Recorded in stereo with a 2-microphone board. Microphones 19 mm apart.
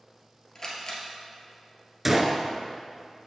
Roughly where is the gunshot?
Centre.